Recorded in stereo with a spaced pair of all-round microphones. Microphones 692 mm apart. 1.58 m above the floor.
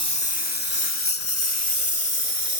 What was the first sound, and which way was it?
A lawn mower, 35° left (ahead or behind).